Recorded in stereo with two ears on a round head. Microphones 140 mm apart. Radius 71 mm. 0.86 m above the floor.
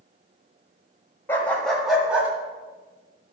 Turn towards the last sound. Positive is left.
turn(degrees=-10)  # may be behind; listen again after turning